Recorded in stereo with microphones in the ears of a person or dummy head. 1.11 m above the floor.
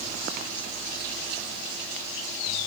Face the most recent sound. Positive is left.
No sound to turn to.